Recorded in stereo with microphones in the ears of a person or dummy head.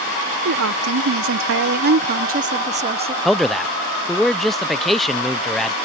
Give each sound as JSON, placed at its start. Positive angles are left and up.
{"t": 0.5, "sound": "a woman speaking", "side_deg": -85}
{"t": 3.2, "sound": "a man speaking", "side_deg": 0}